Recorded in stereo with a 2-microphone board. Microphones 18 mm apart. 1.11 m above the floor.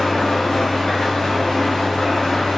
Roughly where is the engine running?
Left.